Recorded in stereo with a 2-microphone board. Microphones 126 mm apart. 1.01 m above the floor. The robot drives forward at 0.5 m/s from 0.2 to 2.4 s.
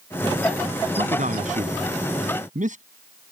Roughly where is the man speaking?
Right.